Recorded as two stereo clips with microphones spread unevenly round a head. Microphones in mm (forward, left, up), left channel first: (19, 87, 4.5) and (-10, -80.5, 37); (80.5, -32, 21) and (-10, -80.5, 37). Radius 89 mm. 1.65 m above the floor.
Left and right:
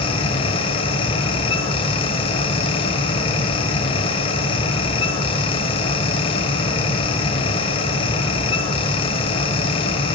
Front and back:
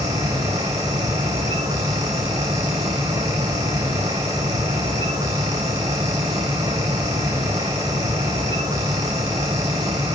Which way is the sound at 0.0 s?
135° left.